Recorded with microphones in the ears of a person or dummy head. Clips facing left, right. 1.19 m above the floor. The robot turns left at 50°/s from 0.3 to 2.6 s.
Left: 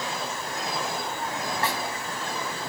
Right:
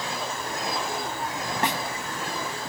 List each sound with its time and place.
1.6 s a snare drum: 20° right (ahead or behind); by 1.8 s 25° right (ahead or behind)